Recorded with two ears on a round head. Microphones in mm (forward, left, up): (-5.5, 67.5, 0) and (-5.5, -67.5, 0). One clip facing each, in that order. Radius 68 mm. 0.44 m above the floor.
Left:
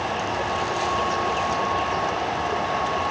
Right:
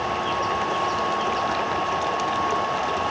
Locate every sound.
Only background noise.